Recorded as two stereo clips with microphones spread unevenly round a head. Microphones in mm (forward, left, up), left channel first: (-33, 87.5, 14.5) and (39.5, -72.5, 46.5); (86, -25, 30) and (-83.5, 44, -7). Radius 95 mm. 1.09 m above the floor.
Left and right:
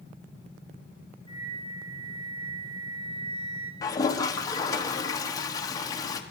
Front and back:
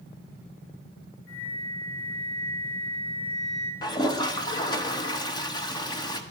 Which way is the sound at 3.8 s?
50° left.